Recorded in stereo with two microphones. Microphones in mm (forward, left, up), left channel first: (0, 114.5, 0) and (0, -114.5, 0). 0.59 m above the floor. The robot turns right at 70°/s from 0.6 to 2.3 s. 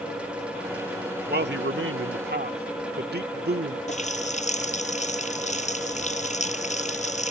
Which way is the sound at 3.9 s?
30° left (ahead or behind).